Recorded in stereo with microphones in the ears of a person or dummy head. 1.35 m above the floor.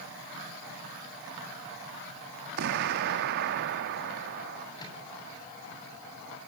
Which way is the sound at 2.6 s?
60° right (ahead or behind).